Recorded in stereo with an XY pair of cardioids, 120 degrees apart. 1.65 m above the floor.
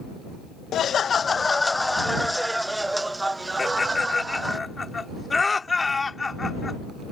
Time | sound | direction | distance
0.7 | laughter | 55° left | ?
3.6 | laughter | 20° left | ?